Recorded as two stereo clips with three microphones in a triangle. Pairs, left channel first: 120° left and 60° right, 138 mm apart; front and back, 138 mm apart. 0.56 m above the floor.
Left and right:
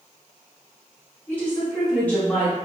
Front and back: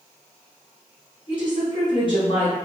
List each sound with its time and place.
1.3 s a woman speaking: 45° left, 1.0 m